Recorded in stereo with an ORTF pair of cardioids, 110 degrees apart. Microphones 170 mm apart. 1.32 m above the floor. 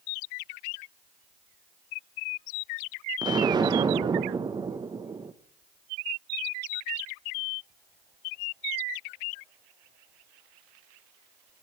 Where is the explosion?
25° right, 0.9 m.